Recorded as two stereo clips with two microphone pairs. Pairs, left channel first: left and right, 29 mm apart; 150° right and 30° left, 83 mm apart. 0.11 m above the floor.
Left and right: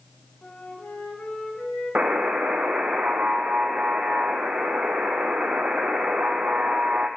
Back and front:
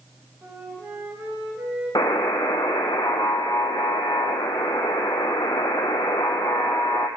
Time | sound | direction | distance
0.4 | a flute | 95° left | 3.5 m
1.9 | a buzzer | 115° right | 0.6 m